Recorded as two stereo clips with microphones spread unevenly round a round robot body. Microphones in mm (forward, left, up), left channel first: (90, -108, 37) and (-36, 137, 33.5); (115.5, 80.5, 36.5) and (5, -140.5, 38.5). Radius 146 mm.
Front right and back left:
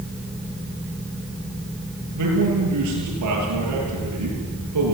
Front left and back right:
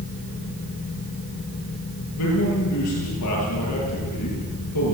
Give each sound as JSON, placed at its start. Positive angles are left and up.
{"t": 2.1, "sound": "a man speaking", "azimuth_deg": 95, "distance_m": 8.5}